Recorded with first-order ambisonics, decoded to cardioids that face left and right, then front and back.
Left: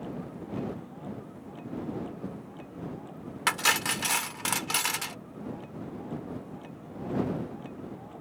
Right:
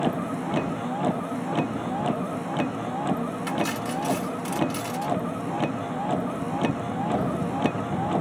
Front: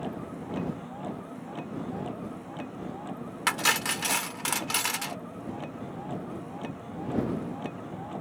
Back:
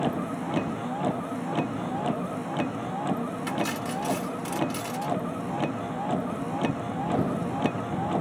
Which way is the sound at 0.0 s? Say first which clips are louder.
Right 13 dB, back 8 dB; 125° right.